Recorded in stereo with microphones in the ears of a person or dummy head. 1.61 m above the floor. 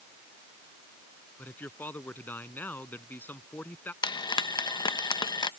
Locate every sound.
1.4 s a man speaking: 10° left (ahead or behind)
4.0 s frying: 20° left (ahead or behind)